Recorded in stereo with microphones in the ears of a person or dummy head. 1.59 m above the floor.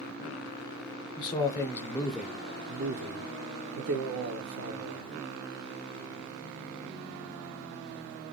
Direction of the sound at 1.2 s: 25° left (ahead or behind).